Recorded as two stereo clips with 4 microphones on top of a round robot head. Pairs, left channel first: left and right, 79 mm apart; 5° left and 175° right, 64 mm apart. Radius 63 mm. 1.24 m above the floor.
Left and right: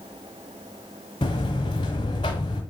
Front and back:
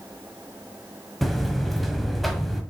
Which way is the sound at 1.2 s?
95° left.